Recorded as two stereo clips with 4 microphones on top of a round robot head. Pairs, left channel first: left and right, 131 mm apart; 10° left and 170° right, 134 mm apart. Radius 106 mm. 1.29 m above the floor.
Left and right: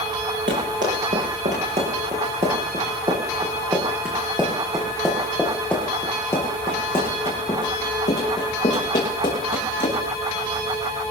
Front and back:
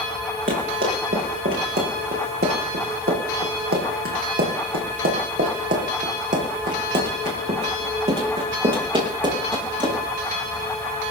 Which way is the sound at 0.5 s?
135° right.